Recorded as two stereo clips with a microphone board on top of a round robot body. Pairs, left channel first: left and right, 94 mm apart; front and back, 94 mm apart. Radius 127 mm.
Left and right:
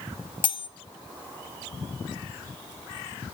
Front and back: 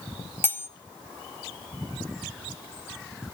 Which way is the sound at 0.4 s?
65° left.